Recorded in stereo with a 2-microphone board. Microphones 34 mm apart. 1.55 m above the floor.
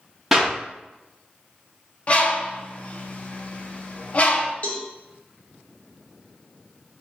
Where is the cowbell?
55° left (ahead or behind), 1.0 m.